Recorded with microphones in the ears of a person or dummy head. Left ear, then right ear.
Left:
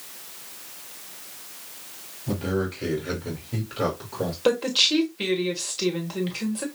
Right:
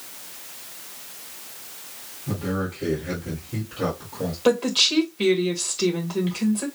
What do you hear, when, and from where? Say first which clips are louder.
2.3 s a man speaking: left 1 dB; 50° left (ahead or behind), 3 m
4.5 s a woman speaking: right 1 dB; 5° left (ahead or behind), 1.5 m